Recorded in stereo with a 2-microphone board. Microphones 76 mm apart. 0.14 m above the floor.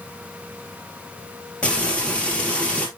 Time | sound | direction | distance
1.6 | frying | 15° left (ahead or behind) | 3 m